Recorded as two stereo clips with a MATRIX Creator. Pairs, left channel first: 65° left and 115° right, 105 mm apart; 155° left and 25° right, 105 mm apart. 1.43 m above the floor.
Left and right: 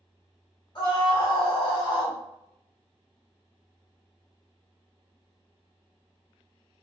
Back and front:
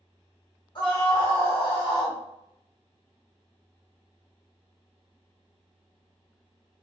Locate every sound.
0.8 s a scream: 115° left, 1.2 m